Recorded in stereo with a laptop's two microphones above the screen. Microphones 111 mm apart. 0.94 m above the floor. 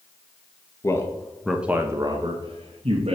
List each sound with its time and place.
0.8 s a man speaking: 30° left (ahead or behind), 0.8 m; by 3.2 s 70° right (ahead or behind), 1.1 m